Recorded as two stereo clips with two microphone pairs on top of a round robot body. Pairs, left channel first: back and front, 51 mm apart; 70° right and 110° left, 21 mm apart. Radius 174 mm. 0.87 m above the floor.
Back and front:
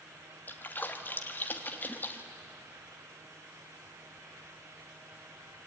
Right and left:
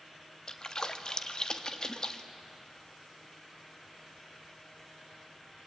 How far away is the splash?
About 1.5 m.